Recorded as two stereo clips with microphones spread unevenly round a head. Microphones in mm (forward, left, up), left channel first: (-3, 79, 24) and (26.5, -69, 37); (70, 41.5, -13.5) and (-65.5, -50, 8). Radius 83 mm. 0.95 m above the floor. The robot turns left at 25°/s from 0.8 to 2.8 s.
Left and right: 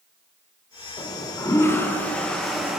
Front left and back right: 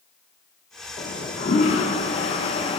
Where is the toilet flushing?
60° left, 1.0 m; by 2.8 s 10° left, 1.0 m.